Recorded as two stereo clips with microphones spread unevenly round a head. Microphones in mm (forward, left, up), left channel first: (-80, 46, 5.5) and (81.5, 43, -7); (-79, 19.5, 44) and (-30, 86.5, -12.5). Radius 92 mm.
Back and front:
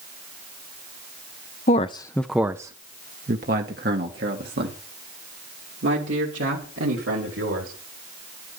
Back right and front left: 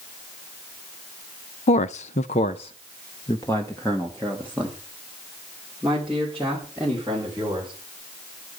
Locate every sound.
1.7 s a man speaking: 135° right, 0.7 m; by 7.7 s 25° right, 4 m